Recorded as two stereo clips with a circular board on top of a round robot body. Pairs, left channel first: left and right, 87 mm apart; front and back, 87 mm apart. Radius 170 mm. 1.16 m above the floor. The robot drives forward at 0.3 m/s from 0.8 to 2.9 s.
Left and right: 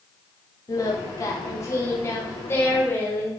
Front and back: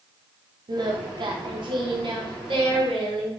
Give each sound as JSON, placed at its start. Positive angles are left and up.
{"t": 0.7, "sound": "singing", "azimuth_deg": 140, "distance_m": 1.2}